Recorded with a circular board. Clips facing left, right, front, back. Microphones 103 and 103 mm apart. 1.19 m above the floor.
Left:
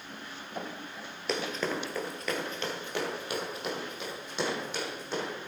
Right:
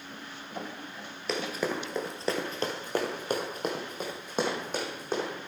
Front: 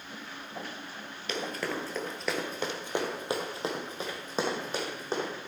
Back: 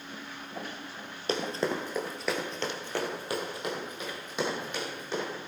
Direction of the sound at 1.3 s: Straight behind.